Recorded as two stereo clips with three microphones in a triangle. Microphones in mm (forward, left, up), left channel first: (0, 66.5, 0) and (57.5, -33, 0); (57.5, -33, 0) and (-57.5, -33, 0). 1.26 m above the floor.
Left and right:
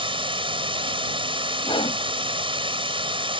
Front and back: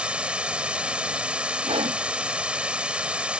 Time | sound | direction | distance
0.0 | running water | 100° right | ?
1.6 | a whoosh | 155° left | ?